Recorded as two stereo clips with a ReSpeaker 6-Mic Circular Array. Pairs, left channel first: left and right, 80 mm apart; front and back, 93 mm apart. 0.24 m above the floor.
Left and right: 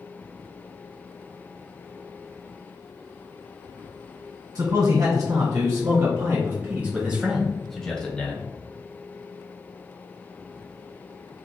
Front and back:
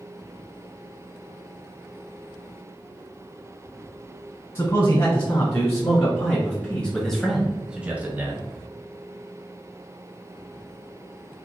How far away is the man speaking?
About 1.9 m.